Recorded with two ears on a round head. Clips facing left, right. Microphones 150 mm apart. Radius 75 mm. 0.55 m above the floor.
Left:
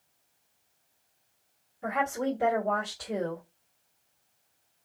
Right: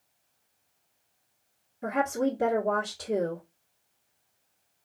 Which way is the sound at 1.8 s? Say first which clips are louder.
Right 2 dB; 40° right (ahead or behind).